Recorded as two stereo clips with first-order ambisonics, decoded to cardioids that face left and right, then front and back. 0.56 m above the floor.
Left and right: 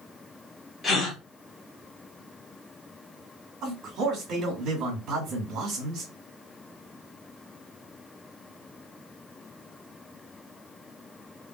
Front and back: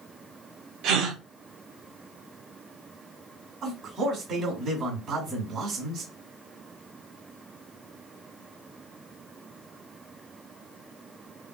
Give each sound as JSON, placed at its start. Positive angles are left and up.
{"t": 0.8, "sound": "a gasp", "azimuth_deg": 155, "distance_m": 1.3}
{"t": 3.6, "sound": "a man speaking", "azimuth_deg": -125, "distance_m": 2.0}